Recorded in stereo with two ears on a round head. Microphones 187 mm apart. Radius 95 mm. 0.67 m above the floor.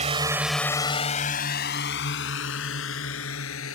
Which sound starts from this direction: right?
A drone, at 0.0 s.